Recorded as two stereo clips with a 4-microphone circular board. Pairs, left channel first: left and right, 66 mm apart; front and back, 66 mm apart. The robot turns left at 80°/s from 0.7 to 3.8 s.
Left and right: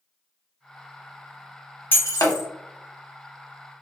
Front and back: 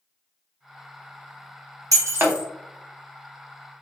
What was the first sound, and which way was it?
Breaking glass, 150° left.